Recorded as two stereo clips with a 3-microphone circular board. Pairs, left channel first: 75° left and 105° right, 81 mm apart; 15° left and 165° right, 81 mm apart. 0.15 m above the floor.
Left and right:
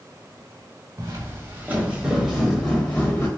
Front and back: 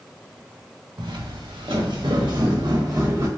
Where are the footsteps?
150° right, 1.0 m; by 3.3 s 140° left, 1.2 m.